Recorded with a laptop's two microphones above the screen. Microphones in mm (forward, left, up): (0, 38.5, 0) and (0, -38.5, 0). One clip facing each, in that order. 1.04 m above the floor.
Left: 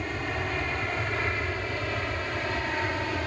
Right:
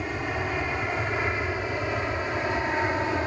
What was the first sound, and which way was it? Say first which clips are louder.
An aircraft: right 2 dB; 10° right (ahead or behind).